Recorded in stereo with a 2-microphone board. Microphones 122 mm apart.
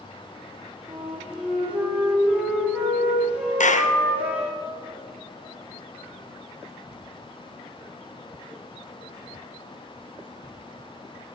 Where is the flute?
10° right (ahead or behind), 4 m.